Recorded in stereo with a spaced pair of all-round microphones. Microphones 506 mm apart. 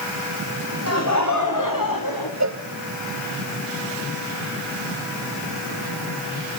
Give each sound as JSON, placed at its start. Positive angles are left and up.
{"t": 0.9, "sound": "laughter", "side_deg": 30, "distance_m": 3.5}
{"t": 2.4, "sound": "a cowbell", "side_deg": -35, "distance_m": 0.8}